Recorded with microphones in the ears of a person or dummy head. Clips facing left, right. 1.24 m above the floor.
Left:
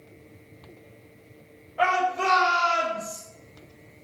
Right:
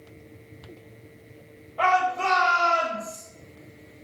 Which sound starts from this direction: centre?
A shout, at 1.8 s.